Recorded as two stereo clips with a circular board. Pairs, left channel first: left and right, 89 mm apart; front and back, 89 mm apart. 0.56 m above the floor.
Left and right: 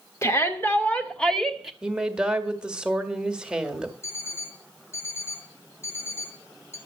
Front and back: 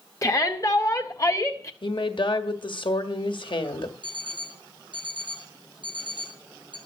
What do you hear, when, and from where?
0.2 s a shout: 40° left, 1.8 m; by 1.7 s 10° right, 1.3 m
1.8 s a woman speaking: 10° right, 1.5 m
4.0 s an alarm clock: 150° left, 3 m